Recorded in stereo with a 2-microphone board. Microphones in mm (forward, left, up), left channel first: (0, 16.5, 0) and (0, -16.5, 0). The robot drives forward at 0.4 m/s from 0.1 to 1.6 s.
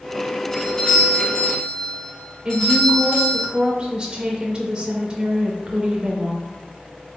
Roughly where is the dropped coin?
I don't hear a dropped coin.